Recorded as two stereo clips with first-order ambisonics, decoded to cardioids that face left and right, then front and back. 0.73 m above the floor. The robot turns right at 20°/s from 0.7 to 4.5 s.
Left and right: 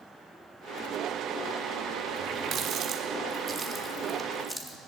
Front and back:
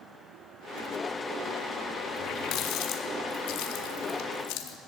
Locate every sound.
2.2 s a running tap: 50° right, 1.1 m; by 4.8 s 5° right, 1.1 m